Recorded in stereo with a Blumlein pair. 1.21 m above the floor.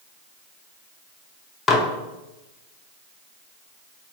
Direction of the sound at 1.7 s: 15° left.